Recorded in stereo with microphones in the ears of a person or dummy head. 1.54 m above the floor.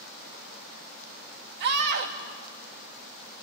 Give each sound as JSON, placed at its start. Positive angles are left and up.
{"t": 1.6, "sound": "a scream", "side_deg": -60, "distance_m": 2.0}